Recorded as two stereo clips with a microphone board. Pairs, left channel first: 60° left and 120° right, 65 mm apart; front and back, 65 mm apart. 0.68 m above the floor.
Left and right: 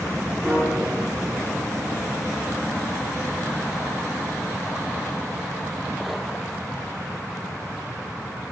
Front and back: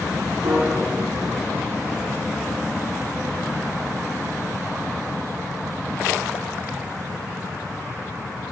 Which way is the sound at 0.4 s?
160° left.